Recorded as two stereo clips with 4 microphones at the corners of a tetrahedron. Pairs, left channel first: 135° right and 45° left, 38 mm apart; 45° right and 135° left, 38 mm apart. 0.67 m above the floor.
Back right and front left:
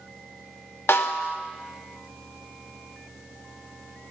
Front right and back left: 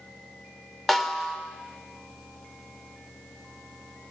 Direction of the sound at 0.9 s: 130° right.